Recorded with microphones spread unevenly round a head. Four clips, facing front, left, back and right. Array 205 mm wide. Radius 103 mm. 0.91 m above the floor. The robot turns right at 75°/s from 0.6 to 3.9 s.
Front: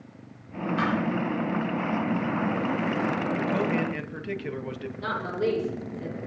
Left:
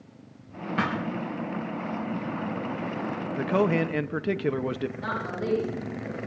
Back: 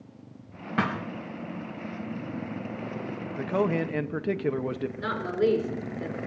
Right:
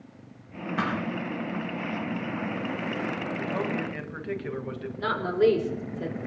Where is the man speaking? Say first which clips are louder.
Left 9 dB, back 4 dB; 75° left, 0.9 m; by 4.9 s 115° left, 0.9 m.